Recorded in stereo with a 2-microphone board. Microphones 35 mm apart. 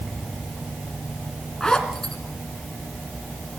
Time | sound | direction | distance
1.6 | a zipper | 20° left (ahead or behind) | 2.5 m